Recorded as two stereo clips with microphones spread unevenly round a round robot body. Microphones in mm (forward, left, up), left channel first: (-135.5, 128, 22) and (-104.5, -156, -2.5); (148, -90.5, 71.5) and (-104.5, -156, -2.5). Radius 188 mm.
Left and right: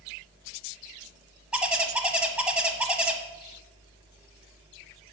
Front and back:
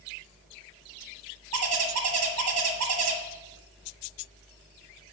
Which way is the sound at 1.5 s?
170° right.